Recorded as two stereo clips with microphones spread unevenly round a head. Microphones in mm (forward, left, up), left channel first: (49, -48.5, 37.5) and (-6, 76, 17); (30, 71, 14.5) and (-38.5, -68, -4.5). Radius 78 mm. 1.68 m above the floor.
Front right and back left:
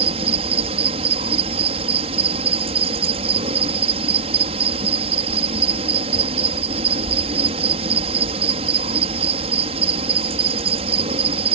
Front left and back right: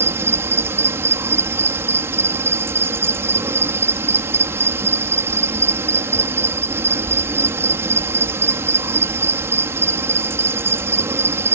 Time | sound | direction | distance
0.0 | an insect | 170° left | ?